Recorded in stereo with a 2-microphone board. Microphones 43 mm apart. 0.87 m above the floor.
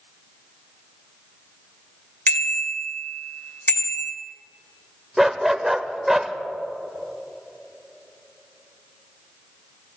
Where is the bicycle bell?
50° left (ahead or behind), 2.5 m.